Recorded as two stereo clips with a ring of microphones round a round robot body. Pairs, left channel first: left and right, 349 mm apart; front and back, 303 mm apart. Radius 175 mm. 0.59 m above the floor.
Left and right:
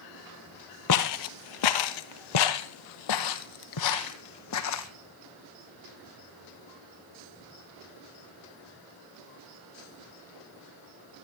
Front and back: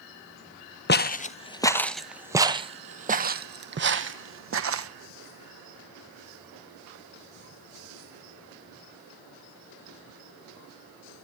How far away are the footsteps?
About 1.2 m.